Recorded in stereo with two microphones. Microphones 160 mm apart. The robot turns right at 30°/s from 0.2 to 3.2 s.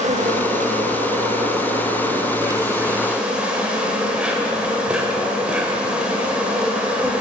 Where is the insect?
100° right, 0.7 m; by 7.2 s 10° right, 0.7 m.